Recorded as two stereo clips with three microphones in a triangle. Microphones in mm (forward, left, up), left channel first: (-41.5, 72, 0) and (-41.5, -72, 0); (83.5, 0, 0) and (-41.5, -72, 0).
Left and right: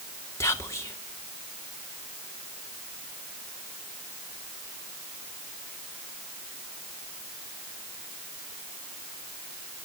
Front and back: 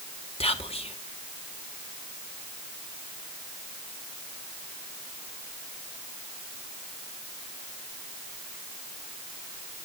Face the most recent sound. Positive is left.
turn(degrees=30)